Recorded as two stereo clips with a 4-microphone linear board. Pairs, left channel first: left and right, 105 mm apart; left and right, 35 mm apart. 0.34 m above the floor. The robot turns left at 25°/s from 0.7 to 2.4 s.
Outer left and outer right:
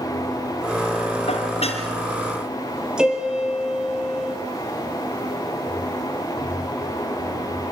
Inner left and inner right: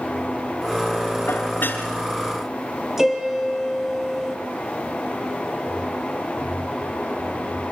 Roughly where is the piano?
Centre.